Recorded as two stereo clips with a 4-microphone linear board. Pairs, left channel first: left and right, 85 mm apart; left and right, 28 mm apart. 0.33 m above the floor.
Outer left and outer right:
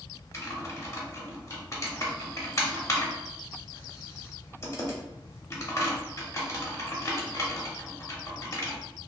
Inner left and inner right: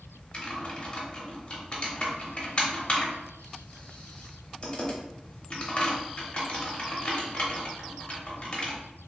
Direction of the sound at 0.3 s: 35° left (ahead or behind).